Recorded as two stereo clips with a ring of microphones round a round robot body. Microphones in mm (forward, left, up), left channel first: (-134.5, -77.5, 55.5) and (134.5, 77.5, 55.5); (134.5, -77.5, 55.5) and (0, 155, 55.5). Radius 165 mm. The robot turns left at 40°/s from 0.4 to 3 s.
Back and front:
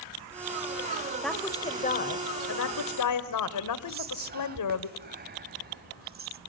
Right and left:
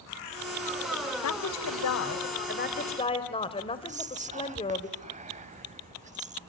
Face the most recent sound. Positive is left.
turn(degrees=70)